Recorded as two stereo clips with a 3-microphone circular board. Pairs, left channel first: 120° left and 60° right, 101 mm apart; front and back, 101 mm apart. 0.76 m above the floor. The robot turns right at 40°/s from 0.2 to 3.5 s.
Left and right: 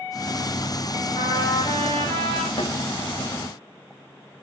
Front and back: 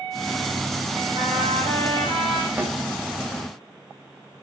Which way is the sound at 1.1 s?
150° left.